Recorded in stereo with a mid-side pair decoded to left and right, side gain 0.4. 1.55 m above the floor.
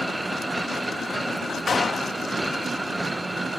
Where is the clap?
40° left.